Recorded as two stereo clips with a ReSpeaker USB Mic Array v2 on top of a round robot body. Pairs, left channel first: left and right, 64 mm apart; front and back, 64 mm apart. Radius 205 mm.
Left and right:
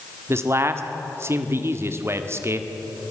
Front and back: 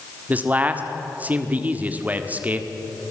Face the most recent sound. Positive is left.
turn(degrees=-125)